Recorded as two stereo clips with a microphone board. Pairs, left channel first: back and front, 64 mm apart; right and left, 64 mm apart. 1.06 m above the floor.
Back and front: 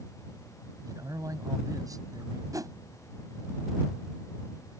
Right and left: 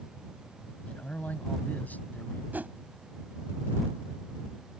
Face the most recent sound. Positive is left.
turn(degrees=30)